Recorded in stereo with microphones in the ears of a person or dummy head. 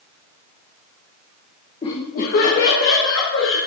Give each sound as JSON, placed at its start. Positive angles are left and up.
{"t": 1.8, "sound": "laughter", "side_deg": 25, "distance_m": 1.1}